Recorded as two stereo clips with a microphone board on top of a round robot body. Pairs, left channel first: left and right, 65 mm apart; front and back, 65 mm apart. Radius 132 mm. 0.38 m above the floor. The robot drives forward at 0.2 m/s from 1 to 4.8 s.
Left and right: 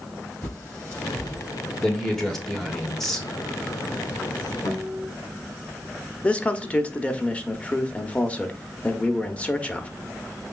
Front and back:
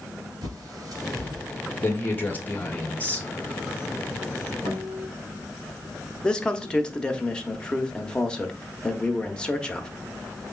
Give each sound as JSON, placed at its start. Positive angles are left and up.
{"t": 0.4, "sound": "a bird", "azimuth_deg": 150, "distance_m": 2.5}
{"t": 1.8, "sound": "a man speaking", "azimuth_deg": 10, "distance_m": 1.6}
{"t": 4.7, "sound": "a guitar", "azimuth_deg": 135, "distance_m": 3.5}
{"t": 6.2, "sound": "a man speaking", "azimuth_deg": 55, "distance_m": 0.9}